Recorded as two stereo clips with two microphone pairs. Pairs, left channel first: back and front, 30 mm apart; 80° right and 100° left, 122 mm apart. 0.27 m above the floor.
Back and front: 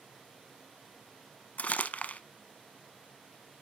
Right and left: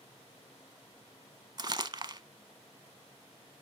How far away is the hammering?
I don't hear hammering.